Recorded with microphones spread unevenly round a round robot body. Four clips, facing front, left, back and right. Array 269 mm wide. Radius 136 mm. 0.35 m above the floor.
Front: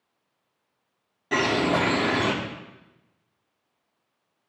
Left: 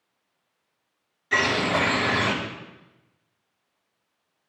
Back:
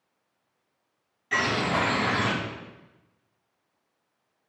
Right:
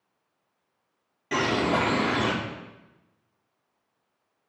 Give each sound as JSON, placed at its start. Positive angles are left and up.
{"t": 1.3, "sound": "a bird", "azimuth_deg": -35, "distance_m": 6.0}